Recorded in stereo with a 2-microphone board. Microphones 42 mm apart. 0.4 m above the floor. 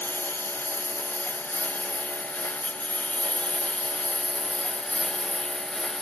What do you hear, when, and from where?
0.0 s a lawn mower: 50° left (ahead or behind); by 6.0 s 15° left (ahead or behind)